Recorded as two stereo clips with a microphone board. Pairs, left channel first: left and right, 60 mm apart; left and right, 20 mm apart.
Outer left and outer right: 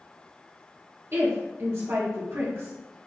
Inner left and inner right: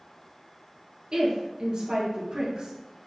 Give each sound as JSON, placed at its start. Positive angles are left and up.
{"t": 1.1, "sound": "a woman speaking", "side_deg": -45, "distance_m": 2.0}